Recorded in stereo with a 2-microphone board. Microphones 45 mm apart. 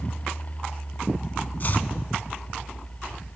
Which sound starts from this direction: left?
Chopping, at 1.6 s.